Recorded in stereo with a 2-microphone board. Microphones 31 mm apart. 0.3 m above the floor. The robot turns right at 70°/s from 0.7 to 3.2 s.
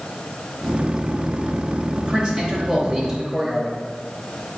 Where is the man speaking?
25° right (ahead or behind), 1.0 m; by 3.7 s 10° right (ahead or behind), 1.0 m.